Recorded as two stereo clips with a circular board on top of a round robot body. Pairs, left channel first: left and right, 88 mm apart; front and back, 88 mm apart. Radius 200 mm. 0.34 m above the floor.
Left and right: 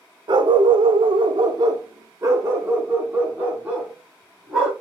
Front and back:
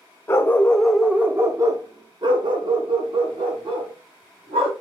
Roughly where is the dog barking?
Ahead right.